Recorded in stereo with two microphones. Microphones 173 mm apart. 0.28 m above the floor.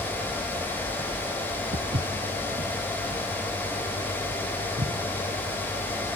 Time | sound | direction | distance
1.7 | footsteps | 70° right (ahead or behind) | 0.7 m